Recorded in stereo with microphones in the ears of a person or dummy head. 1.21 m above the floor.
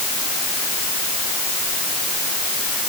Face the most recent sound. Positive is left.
No sound to turn to.